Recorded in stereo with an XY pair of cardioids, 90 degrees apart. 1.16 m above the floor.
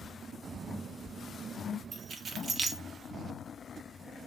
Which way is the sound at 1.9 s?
50° right.